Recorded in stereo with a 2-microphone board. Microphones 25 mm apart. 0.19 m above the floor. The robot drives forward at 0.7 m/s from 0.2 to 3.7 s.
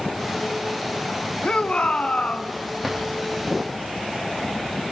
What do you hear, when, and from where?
1.4 s a shout: 45° left (ahead or behind), 1.7 m
2.8 s a drawer: 15° left (ahead or behind), 6.5 m; by 3.1 s 10° left (ahead or behind), 7 m